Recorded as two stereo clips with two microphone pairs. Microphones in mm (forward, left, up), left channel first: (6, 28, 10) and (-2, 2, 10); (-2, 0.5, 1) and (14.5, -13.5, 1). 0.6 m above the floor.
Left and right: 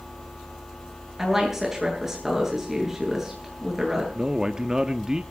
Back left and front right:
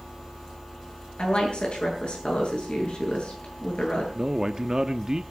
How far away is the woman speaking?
About 9.5 m.